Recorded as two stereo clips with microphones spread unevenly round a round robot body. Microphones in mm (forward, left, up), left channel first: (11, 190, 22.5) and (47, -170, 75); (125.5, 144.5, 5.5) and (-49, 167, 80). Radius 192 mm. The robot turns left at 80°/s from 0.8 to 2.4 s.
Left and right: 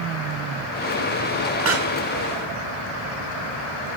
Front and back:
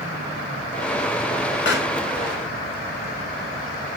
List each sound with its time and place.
1.6 s a pop: 25° right, 1.1 m; by 1.9 s 50° right, 1.1 m